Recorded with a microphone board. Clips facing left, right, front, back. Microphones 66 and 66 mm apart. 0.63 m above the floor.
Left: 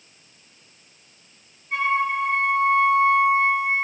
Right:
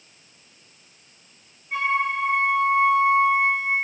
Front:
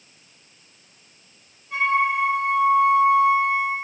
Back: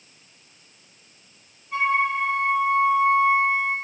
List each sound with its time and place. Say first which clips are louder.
1.7 s a flute: left 1 dB, front 1 dB; straight ahead, 7.5 m